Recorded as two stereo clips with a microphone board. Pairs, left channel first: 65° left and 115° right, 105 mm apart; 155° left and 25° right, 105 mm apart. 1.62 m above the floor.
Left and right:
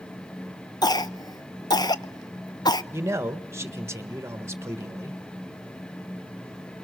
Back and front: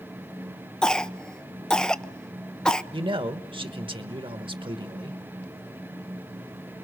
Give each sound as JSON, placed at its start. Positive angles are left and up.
{"t": 0.8, "sound": "a cough", "azimuth_deg": 80, "distance_m": 0.6}
{"t": 2.9, "sound": "a man speaking", "azimuth_deg": -50, "distance_m": 1.3}